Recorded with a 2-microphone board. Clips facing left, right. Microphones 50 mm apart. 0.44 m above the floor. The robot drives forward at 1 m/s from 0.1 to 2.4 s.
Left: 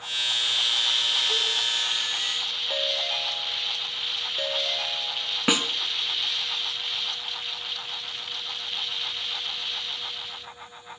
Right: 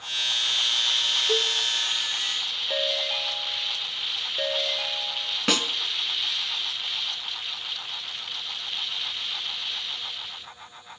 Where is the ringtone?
5° right (ahead or behind), 1.1 m.